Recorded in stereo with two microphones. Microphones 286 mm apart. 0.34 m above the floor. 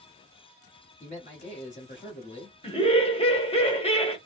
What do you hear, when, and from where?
1.0 s a man speaking: 25° left (ahead or behind), 1.4 m
2.6 s laughter: 20° left (ahead or behind), 0.9 m